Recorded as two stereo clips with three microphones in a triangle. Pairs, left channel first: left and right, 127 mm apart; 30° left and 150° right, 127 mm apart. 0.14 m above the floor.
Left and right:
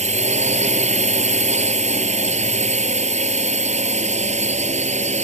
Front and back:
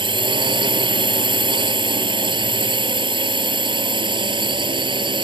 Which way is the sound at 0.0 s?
105° right.